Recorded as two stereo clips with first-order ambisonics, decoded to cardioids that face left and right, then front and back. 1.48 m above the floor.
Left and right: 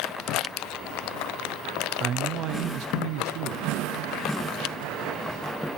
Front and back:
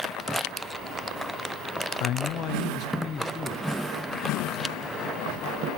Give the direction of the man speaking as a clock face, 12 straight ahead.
1 o'clock.